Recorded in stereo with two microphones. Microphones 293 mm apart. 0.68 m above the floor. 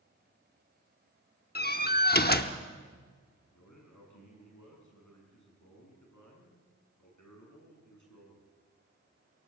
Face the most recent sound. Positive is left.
turn(degrees=80)